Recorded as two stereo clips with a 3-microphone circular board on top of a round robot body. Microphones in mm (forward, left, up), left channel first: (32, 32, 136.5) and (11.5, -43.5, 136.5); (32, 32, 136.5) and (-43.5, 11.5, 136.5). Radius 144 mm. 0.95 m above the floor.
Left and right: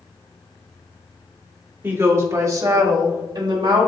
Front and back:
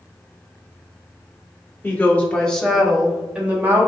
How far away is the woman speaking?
About 1.5 m.